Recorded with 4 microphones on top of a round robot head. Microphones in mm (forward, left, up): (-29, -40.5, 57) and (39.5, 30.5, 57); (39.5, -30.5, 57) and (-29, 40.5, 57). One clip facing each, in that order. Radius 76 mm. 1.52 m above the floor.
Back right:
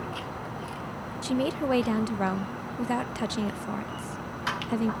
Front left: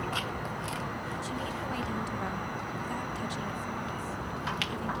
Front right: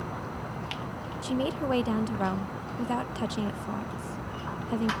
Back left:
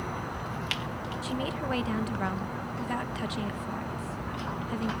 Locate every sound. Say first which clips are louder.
1.2 s a woman speaking: back right 13 dB, front right 5 dB; 105° right